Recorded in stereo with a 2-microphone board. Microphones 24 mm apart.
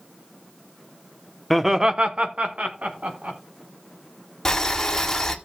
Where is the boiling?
20° left (ahead or behind), 1.5 m.